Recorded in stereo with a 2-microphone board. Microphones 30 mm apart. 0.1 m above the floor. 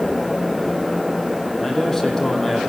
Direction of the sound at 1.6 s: 10° left (ahead or behind).